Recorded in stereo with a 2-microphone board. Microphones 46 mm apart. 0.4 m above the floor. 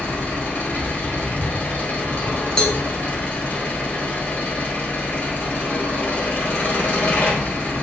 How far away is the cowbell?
About 0.8 m.